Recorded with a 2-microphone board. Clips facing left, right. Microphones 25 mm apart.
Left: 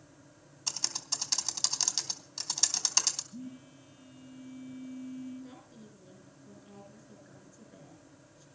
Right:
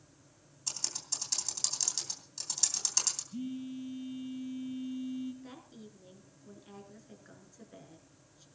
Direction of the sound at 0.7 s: 30° left (ahead or behind).